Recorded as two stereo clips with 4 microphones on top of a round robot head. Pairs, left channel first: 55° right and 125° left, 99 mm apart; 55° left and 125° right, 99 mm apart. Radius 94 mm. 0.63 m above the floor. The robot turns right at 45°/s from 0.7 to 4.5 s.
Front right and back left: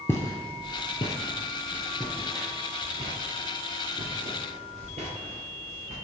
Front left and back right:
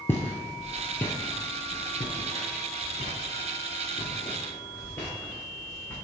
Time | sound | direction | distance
0.1 | footsteps | straight ahead | 0.6 m